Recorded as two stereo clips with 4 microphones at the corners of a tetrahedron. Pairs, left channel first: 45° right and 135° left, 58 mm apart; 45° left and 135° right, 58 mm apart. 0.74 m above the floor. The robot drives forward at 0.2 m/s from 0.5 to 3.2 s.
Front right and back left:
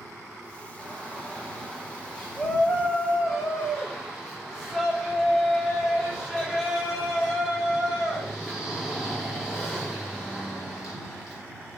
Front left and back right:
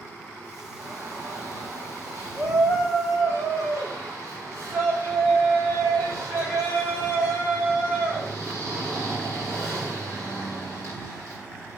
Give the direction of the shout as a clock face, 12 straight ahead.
4 o'clock.